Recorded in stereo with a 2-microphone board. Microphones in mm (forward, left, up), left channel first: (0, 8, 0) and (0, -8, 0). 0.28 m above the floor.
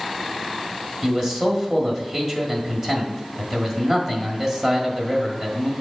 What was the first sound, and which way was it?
A man speaking, 20° right (ahead or behind).